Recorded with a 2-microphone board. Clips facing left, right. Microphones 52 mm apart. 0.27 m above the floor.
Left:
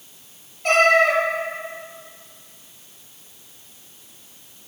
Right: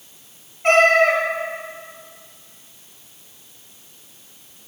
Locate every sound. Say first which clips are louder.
0.6 s a cat meowing: right 2 dB; 40° right (ahead or behind), 1.8 m